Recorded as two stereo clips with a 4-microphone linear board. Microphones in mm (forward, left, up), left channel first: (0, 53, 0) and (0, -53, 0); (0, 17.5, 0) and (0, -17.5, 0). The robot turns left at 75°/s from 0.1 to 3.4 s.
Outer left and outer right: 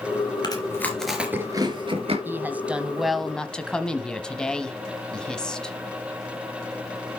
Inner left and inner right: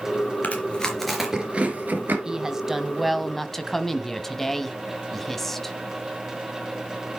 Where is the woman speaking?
20° right (ahead or behind), 1.1 m; by 5.8 s 10° left (ahead or behind), 1.1 m.